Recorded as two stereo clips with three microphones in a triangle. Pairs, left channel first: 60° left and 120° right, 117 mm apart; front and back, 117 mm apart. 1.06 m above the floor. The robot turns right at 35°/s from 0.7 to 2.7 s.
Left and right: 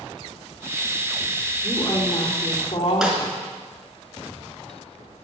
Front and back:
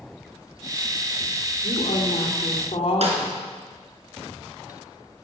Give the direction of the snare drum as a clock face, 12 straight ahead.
7 o'clock.